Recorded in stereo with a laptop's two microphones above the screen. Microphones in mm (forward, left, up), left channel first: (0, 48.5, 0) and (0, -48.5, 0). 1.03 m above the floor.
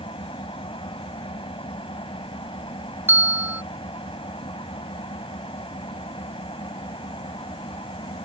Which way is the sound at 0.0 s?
65° left (ahead or behind).